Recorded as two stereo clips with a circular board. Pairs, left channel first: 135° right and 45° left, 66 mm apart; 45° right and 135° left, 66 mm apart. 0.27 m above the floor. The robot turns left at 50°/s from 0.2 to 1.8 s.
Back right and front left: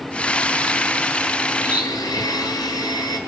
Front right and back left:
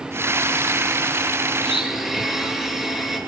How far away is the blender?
About 4 m.